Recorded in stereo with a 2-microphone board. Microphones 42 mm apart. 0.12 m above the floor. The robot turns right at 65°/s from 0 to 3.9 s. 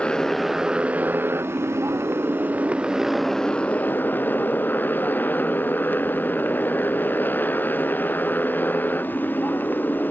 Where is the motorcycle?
155° left; by 10.1 s 50° left.